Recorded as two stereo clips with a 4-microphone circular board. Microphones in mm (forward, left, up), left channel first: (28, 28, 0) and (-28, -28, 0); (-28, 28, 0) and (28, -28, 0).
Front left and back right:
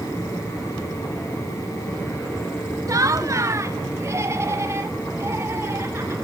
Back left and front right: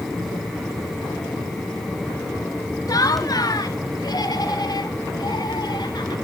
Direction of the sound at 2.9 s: Straight behind.